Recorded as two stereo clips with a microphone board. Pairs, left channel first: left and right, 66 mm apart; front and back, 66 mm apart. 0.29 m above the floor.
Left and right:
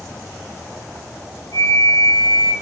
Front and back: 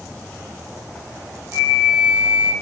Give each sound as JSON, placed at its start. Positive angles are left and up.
{"t": 1.5, "sound": "a flute", "azimuth_deg": 110, "distance_m": 3.5}